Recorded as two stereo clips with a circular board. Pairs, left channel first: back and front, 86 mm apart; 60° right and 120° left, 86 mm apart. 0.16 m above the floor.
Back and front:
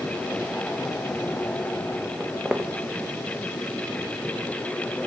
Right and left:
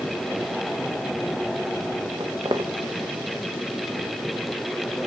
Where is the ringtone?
No ringtone in this recording.